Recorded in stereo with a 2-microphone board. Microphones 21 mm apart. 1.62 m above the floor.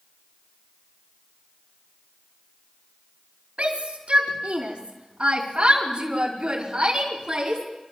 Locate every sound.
3.6 s a shout: 65° right (ahead or behind), 5 m; by 7.6 s 35° right (ahead or behind), 6 m